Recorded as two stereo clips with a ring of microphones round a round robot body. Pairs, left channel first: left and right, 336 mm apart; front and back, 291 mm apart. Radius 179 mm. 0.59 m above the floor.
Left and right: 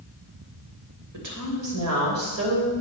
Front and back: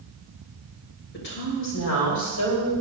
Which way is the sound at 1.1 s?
55° right.